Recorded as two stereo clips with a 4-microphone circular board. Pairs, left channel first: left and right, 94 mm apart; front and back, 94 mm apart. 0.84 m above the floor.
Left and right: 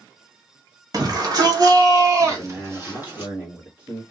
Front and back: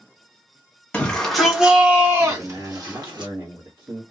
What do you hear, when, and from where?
0.9 s a shout: 70° right, 1.1 m; by 3.3 s 155° right, 1.7 m
2.3 s a man speaking: 150° right, 1.6 m